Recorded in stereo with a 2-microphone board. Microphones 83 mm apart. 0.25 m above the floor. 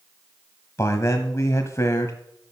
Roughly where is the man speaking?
Left.